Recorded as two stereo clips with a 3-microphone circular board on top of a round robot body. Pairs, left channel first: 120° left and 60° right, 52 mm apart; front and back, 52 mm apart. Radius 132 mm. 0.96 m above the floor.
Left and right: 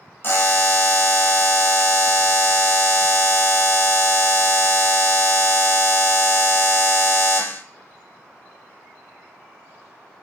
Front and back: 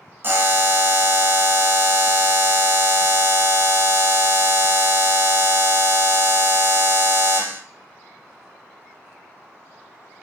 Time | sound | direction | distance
0.2 | a buzzer | 150° left | 1.1 m